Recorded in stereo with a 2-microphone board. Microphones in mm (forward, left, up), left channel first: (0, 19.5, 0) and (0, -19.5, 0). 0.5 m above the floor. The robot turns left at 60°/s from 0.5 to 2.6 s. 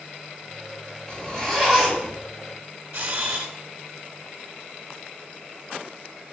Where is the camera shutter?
55° right (ahead or behind), 2 m.